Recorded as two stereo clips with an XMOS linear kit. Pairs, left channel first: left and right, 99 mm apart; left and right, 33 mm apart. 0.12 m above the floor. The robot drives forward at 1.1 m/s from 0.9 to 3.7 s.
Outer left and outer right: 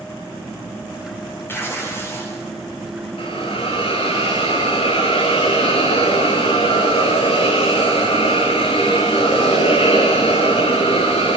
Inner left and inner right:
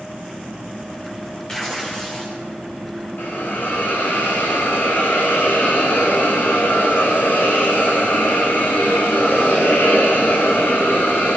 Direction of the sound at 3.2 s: 60° left (ahead or behind).